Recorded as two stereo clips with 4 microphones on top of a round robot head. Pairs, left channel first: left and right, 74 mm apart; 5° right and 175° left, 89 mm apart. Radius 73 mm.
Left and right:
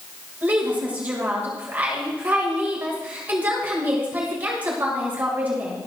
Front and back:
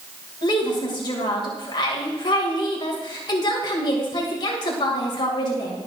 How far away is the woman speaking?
About 2.5 m.